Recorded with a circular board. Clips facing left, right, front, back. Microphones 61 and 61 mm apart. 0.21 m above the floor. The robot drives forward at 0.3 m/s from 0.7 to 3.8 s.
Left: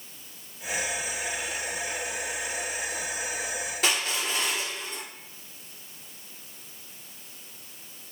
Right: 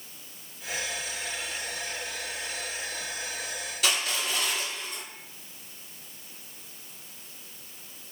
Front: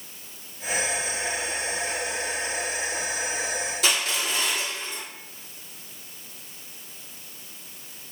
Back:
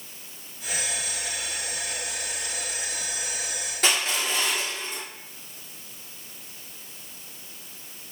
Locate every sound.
3.8 s crushing: 140° left, 1.8 m